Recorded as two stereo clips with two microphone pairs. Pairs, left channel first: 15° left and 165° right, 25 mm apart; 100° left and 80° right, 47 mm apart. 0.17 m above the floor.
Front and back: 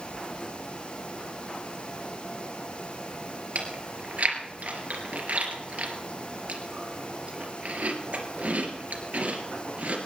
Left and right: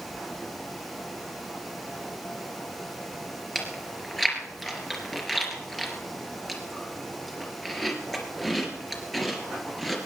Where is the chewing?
175° right, 3 m.